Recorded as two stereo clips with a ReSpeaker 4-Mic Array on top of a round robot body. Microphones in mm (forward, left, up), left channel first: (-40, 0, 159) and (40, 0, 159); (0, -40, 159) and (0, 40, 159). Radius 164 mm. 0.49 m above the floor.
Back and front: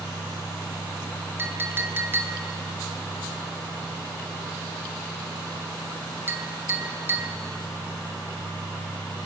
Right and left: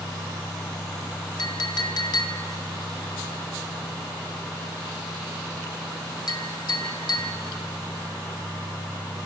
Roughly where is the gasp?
I don't hear a gasp.